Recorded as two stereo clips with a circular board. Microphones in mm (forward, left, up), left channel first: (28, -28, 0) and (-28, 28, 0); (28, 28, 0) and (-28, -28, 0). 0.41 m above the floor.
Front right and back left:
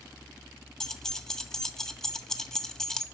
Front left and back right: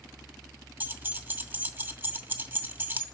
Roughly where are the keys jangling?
Behind right.